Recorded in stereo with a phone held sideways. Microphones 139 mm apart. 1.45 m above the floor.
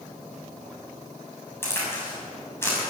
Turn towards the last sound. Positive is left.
turn(degrees=20)  # may be behind; listen again after turning